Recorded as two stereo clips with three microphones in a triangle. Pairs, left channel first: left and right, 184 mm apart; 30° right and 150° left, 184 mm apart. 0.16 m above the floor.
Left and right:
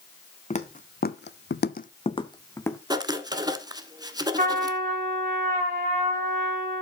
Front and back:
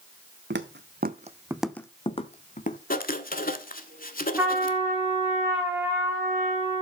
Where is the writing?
25° right, 0.8 m.